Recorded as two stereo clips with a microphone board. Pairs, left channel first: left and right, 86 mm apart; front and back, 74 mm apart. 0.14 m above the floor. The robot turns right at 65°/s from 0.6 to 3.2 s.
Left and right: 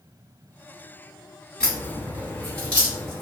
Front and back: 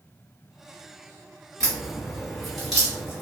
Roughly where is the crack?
Ahead left.